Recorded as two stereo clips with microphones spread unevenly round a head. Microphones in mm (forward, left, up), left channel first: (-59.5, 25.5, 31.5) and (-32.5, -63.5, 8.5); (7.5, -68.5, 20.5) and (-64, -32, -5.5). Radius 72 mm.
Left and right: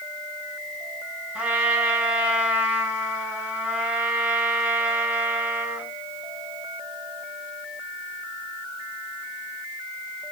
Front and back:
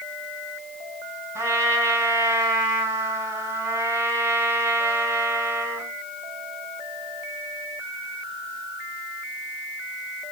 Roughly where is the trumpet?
Behind right.